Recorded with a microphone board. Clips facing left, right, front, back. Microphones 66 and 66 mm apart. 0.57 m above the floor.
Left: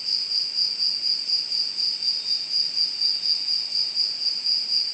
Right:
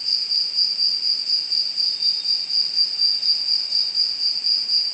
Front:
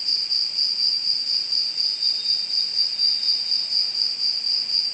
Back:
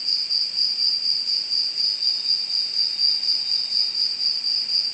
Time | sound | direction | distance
0.0 | an insect | 90° right | 3.5 m